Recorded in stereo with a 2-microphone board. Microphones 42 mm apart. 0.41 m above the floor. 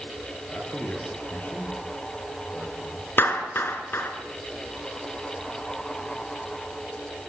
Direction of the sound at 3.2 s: 65° left (ahead or behind).